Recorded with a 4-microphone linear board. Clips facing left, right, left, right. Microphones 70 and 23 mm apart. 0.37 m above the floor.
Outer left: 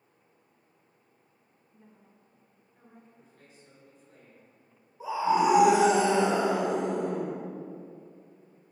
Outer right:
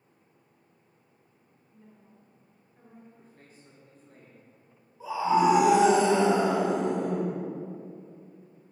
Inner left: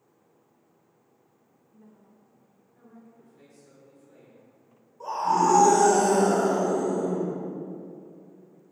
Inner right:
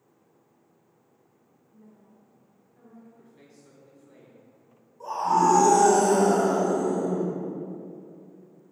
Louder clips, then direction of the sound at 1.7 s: Outer right 2 dB, inner right 1 dB; 20° left (ahead or behind).